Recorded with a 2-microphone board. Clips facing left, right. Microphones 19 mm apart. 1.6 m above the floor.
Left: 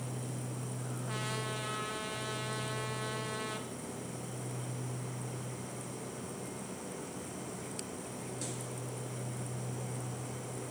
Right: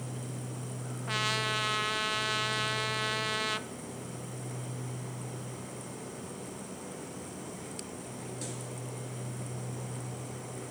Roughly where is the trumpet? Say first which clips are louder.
Right 9 dB; right.